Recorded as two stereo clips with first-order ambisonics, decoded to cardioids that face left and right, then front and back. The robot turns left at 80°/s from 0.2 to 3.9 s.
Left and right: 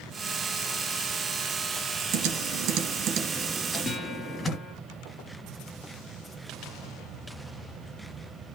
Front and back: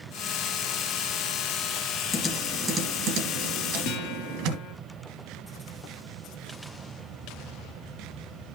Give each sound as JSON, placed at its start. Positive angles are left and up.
{"t": 2.1, "sound": "typing on a keyboard", "azimuth_deg": -55, "distance_m": 3.0}
{"t": 3.9, "sound": "a guitar", "azimuth_deg": 25, "distance_m": 4.5}